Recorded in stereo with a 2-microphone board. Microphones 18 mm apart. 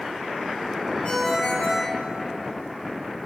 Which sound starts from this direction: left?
A ringtone, at 1.0 s.